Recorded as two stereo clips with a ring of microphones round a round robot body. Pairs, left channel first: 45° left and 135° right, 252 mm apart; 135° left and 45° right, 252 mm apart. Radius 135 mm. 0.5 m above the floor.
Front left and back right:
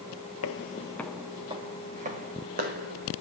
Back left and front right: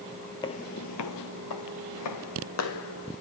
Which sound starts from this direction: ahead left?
Footsteps, at 0.4 s.